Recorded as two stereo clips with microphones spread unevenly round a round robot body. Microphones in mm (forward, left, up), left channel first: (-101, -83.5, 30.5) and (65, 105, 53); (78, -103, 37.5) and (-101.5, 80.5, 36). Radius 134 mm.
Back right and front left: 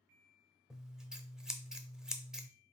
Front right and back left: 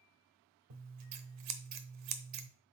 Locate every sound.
0.7 s scissors: 140° left, 0.6 m